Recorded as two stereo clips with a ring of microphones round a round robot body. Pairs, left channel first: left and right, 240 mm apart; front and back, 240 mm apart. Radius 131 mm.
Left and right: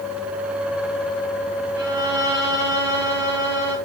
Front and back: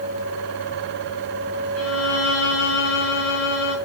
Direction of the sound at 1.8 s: 10° right.